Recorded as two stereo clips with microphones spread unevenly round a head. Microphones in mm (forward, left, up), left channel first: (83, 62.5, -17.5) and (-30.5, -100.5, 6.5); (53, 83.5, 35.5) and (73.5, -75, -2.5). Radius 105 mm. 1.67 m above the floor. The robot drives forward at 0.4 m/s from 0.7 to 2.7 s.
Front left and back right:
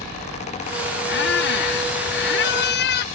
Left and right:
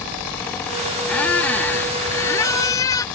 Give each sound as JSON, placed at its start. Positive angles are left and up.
{"t": 1.1, "sound": "a squeak", "azimuth_deg": 25}